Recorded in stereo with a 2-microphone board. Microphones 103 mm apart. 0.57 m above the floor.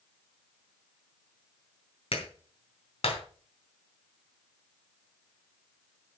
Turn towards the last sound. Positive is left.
turn(degrees=65)  # may be behind; listen again after turning